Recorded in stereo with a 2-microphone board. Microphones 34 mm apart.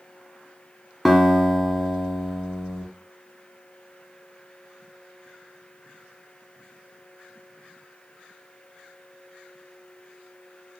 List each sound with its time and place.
1.1 s a guitar: 10° right (ahead or behind), 0.9 m